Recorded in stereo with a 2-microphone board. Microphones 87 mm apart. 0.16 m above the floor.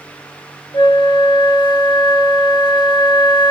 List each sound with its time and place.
0.7 s a flute: 60° left (ahead or behind), 0.6 m